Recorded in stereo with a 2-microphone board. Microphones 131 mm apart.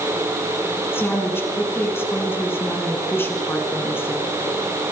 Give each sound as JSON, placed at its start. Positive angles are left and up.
{"t": 0.9, "sound": "a woman speaking", "side_deg": 20, "distance_m": 4.5}